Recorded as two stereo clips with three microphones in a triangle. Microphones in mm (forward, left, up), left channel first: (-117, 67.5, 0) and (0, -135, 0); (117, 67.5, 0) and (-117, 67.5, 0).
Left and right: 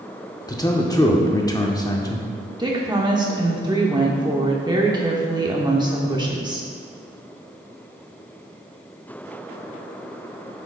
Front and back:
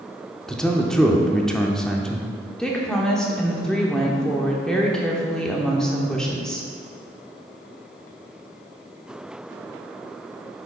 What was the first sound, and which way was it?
A man speaking, 80° left.